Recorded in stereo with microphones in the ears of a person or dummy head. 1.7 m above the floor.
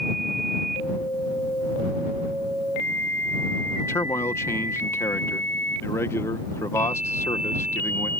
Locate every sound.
3.8 s a man speaking: 15° left (ahead or behind)